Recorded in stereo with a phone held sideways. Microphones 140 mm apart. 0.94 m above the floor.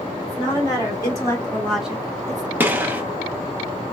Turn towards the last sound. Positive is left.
turn(degrees=-15)  # may be behind; listen again after turning